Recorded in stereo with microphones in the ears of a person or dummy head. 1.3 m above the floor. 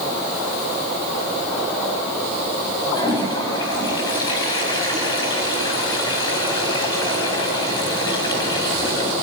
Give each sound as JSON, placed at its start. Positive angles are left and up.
{"t": 2.9, "sound": "a toilet flushing", "side_deg": 30, "distance_m": 3.5}